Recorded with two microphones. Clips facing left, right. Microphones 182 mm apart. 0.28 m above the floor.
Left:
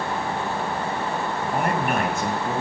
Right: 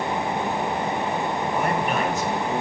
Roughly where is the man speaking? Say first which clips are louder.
Left 2 dB; left.